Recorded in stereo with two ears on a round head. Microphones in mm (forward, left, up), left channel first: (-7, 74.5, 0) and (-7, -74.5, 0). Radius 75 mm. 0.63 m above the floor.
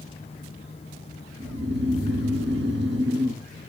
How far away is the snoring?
About 0.9 m.